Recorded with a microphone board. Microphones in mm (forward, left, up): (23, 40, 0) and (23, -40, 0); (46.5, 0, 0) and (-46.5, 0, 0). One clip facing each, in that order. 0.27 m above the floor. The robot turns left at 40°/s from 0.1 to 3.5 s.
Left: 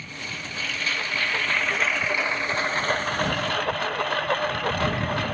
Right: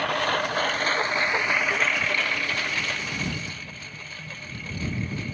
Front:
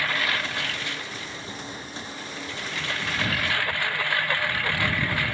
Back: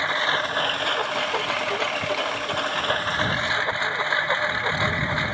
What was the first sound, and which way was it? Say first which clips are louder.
A lawn mower: right 12 dB, back 4 dB; 110° right.